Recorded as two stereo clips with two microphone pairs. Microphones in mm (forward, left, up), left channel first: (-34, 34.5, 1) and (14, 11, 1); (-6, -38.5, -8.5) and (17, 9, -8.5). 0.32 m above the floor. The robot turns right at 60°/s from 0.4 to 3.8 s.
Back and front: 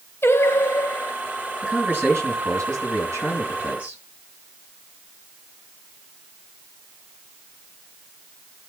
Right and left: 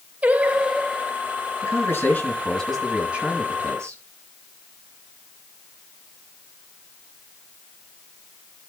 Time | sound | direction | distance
0.2 | singing | 120° left | 0.7 m
1.6 | a man speaking | 100° right | 4 m